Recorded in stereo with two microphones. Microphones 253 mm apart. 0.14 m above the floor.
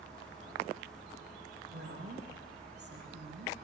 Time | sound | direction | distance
1.7 | a woman speaking | 40° right (ahead or behind) | 9.5 m